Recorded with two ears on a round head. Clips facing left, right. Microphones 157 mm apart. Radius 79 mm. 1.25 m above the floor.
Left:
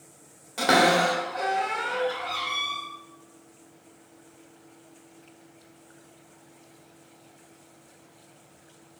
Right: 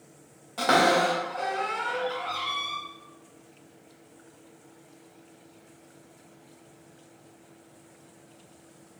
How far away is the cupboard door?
About 1.4 m.